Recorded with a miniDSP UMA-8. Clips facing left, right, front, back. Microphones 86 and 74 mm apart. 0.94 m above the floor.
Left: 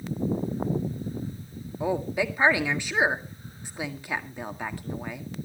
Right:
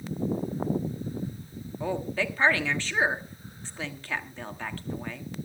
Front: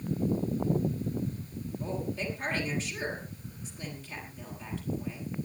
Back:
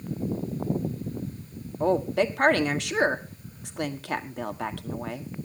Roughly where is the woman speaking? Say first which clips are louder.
Left 3 dB, back 13 dB; behind.